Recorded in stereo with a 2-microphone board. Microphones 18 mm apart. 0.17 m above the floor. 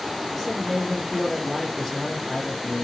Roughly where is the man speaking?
Centre.